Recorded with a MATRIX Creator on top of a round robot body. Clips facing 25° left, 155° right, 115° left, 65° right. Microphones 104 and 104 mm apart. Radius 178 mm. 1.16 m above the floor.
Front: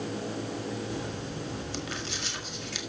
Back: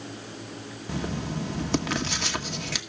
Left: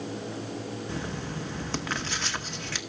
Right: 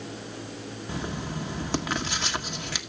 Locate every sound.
0.9 s writing: 145° right, 1.1 m